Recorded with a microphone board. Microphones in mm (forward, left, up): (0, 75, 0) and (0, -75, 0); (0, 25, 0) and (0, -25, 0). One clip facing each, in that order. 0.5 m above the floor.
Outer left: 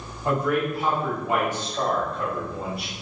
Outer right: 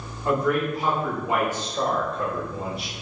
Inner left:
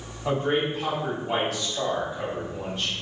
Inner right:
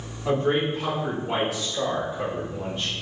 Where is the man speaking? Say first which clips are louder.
Outer right 1 dB, inner right 2 dB; 15° left (ahead or behind), 1.3 m; by 2.9 s 25° right (ahead or behind), 1.6 m.